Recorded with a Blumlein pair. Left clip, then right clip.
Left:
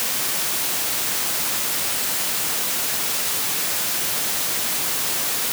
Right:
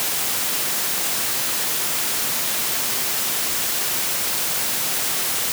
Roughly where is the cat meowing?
No cat meowing in this recording.